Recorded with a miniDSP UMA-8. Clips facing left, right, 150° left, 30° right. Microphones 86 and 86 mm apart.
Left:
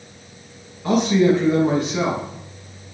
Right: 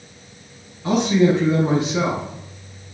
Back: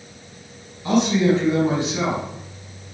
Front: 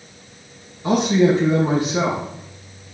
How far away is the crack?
No crack in this recording.